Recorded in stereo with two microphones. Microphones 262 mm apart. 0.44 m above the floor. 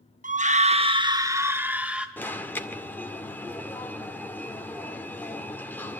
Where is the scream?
30° right (ahead or behind), 0.8 m; by 2.1 s 5° right (ahead or behind), 1.5 m.